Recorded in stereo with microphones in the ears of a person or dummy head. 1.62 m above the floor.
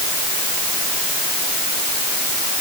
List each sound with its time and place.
Only background noise.